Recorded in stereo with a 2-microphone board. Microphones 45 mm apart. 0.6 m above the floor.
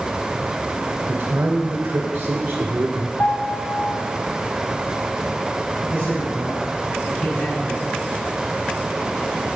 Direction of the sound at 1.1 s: 60° right (ahead or behind).